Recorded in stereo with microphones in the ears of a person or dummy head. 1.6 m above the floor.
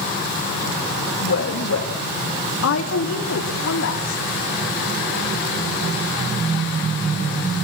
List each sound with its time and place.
1.2 s a woman speaking: 85° left, 2.5 m; by 4.2 s 70° left (ahead or behind), 4 m